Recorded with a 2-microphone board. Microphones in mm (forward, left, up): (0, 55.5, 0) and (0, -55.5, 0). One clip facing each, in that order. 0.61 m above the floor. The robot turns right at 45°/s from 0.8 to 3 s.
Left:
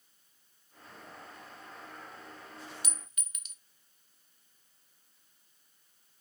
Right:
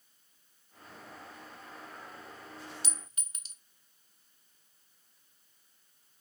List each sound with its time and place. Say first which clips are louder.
2.8 s a clink: right 1 dB; 30° right (ahead or behind), 0.6 m; by 3.5 s 35° right (ahead or behind), 0.6 m